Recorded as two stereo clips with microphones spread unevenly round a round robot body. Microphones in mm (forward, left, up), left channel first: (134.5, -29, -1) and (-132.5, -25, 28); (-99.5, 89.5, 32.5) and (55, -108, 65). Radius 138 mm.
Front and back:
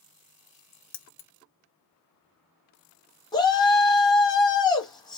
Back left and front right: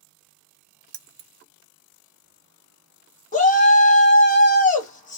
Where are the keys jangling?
10° right, 0.6 m.